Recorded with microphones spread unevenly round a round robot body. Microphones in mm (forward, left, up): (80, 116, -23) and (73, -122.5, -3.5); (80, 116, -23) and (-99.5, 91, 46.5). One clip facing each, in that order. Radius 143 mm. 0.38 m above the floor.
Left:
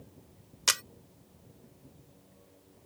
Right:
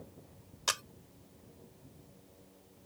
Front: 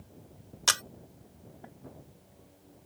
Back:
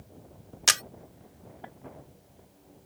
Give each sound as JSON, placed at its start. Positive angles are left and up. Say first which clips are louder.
{"t": 0.7, "sound": "a camera shutter", "louder": "left 1 dB, back 1 dB", "azimuth_deg": 100}